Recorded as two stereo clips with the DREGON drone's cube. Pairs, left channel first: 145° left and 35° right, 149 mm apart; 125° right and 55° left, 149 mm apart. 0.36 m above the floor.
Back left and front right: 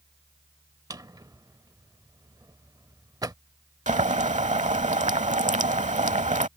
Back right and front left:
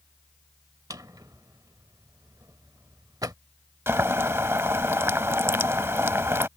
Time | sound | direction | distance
0.9 | a drawer | 10° left | ?
3.9 | boiling | 15° right | ?